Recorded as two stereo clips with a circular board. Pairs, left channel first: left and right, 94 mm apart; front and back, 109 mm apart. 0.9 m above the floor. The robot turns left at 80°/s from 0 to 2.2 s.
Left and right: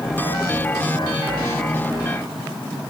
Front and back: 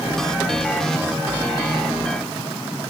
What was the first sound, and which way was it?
Only background noise.